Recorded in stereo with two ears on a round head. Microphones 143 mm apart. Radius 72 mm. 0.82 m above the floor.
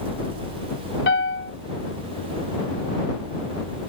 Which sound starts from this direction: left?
A piano, at 1.1 s.